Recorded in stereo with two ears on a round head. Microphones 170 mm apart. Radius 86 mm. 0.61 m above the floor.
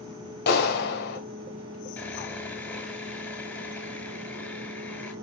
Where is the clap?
60° left (ahead or behind), 3 m.